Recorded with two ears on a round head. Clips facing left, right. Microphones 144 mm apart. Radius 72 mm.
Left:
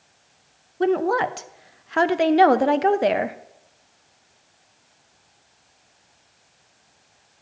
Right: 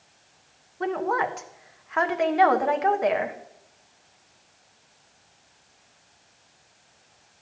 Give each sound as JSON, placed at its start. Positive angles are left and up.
{"t": 0.8, "sound": "a woman speaking", "side_deg": 40, "distance_m": 0.5}